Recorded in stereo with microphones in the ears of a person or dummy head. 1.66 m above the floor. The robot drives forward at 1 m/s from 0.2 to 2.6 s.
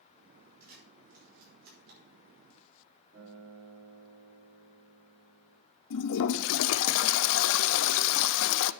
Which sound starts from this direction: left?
A toilet flushing, at 5.9 s.